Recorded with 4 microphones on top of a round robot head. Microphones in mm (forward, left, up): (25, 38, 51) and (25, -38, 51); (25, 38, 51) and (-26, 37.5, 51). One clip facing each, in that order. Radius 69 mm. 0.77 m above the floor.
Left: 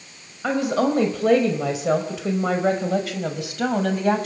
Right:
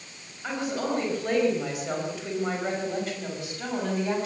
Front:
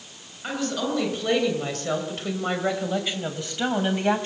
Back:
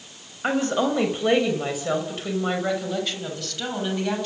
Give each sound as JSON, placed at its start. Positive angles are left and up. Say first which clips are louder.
{"t": 0.4, "sound": "a woman speaking", "louder": "left 8 dB, back 5 dB", "azimuth_deg": 125, "distance_m": 5.0}